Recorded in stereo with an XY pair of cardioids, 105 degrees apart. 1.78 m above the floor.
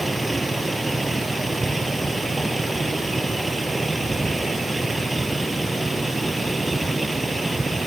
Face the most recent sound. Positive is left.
turn(degrees=-15)